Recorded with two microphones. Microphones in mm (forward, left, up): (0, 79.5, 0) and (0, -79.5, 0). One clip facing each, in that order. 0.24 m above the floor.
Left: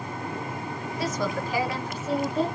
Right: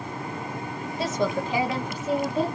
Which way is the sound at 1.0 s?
25° right (ahead or behind).